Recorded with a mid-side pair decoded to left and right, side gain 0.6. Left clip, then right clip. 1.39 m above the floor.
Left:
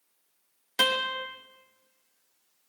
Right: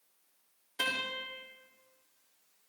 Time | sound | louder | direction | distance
0.8 | a guitar | left 8 dB | 70° left | 2.5 m